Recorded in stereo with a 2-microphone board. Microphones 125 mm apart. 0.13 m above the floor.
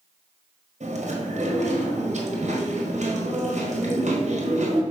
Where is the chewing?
70° right (ahead or behind), 1.5 m.